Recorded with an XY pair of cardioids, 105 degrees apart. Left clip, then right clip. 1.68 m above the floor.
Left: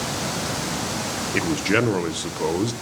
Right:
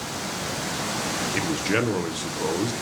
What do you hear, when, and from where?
1.3 s a man speaking: 25° left, 1.5 m